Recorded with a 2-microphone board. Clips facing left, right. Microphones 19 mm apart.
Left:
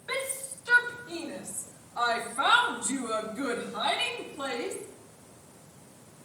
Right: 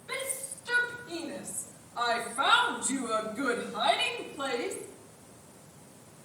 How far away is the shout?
About 2.5 m.